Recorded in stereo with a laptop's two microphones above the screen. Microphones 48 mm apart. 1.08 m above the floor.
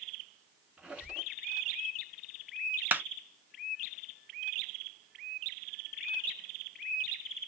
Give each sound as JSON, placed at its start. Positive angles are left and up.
{"t": 0.8, "sound": "a squeak", "side_deg": -20, "distance_m": 1.0}
{"t": 2.9, "sound": "a clap", "side_deg": -40, "distance_m": 0.5}